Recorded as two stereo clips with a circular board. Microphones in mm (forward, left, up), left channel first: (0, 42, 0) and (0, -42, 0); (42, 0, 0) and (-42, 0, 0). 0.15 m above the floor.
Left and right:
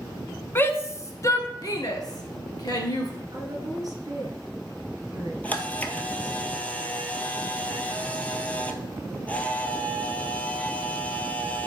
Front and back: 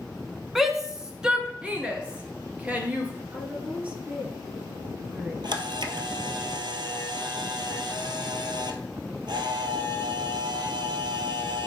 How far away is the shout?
About 1.1 m.